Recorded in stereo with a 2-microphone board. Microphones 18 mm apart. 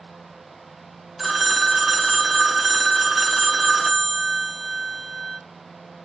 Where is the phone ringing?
Centre (ahead or behind), 0.7 m.